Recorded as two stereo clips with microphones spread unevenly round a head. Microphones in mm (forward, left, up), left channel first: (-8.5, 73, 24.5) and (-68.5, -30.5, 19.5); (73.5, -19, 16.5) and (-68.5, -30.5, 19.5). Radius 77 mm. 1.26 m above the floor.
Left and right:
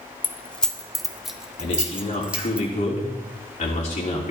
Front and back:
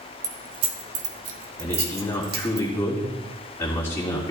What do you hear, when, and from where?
0.2 s keys jangling: 125° left, 0.6 m; by 2.6 s 160° left, 1.6 m
1.6 s a man speaking: 80° left, 3 m